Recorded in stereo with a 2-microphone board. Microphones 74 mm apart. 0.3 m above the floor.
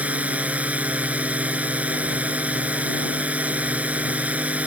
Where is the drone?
20° right (ahead or behind).